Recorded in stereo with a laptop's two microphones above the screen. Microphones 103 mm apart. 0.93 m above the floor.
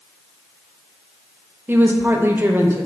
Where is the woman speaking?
20° right (ahead or behind), 0.6 m.